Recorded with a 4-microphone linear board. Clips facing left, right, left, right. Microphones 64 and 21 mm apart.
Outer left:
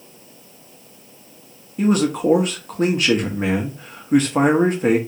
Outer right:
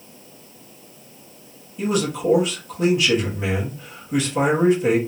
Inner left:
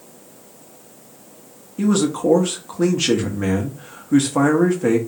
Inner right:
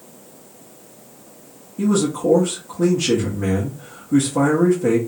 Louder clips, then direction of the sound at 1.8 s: Outer left 5 dB, inner left 1 dB; 45° left (ahead or behind).